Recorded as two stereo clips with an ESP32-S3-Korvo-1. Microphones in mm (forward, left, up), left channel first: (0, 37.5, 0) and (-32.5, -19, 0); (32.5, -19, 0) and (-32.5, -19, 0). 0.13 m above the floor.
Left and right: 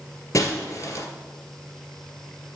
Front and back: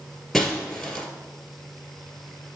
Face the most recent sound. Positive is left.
turn(degrees=90)